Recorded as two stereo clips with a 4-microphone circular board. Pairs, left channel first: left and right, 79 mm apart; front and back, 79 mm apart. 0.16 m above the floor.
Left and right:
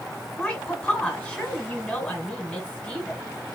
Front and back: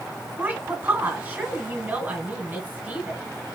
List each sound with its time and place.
0.4 s a woman speaking: 150° left, 1.7 m